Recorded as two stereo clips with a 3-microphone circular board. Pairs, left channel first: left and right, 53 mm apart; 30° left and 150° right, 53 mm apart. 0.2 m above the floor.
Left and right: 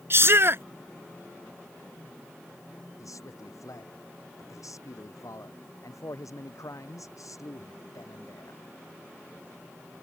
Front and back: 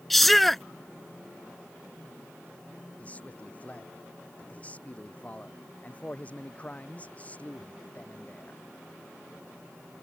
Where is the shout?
60° right.